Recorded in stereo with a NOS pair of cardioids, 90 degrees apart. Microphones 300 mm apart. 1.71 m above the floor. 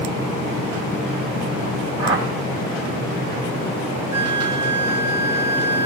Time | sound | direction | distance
2.0 | a whoosh | 50° right | 6 m
4.1 | a flute | 40° right | 4.5 m